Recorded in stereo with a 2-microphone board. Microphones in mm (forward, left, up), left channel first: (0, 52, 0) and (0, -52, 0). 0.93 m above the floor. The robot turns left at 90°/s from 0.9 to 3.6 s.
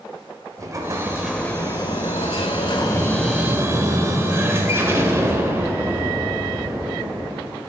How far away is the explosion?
About 1.3 m.